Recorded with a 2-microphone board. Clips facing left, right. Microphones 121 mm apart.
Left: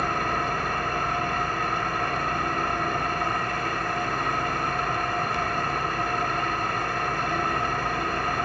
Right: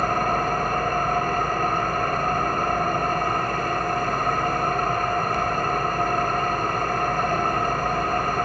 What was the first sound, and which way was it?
An engine running, 45° right (ahead or behind).